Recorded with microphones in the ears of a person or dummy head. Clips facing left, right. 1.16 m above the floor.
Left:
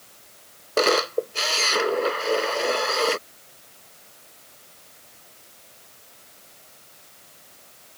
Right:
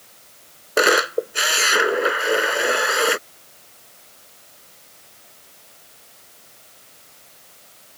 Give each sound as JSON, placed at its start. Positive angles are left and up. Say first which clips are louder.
{"t": 0.8, "sound": "a camera shutter", "louder": "right 2 dB", "side_deg": -15}